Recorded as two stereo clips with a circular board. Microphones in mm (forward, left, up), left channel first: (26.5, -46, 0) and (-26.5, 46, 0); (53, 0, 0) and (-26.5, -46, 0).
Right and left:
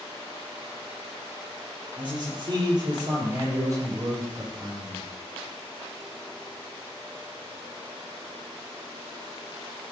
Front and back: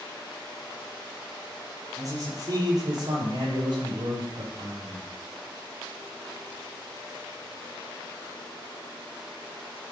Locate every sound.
2.0 s a man speaking: 160° left, 7 m; by 5.0 s 175° right, 7.5 m